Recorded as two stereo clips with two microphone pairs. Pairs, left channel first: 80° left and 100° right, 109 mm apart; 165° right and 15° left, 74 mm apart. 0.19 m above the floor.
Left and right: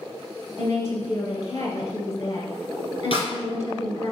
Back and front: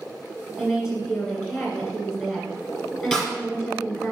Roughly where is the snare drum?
Left.